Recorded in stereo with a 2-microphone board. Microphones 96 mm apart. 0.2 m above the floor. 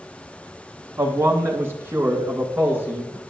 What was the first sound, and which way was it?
A man speaking, 25° right (ahead or behind).